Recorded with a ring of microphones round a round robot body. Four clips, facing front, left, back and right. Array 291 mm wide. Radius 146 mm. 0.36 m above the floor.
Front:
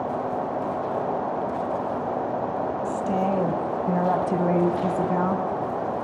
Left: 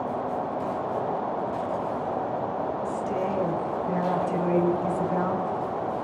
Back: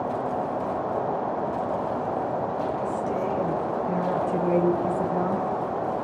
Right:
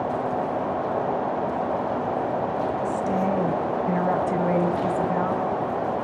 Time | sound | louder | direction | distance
2.9 | a woman speaking | right 4 dB, front 2 dB | 30° right | 3.5 m